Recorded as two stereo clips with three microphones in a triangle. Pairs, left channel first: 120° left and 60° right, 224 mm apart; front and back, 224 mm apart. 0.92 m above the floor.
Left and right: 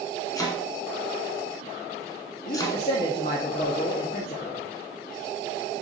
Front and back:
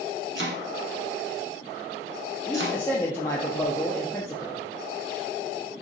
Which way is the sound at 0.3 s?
165° right.